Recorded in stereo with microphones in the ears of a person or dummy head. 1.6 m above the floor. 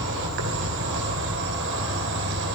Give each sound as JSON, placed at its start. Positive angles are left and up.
{"t": 0.0, "sound": "an insect", "side_deg": -60, "distance_m": 2.0}